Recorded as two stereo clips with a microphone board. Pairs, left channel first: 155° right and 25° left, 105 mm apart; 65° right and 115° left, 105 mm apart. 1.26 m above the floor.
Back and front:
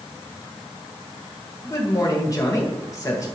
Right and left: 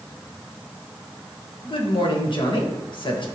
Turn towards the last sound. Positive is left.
turn(degrees=-100)